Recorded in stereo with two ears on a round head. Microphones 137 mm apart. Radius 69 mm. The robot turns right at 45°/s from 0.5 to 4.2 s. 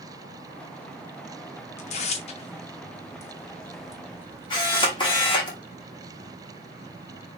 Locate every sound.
1.8 s tearing paper: 45° left (ahead or behind), 0.6 m; by 5.0 s 10° right (ahead or behind), 0.6 m
4.5 s a camera shutter: 30° left (ahead or behind), 1.3 m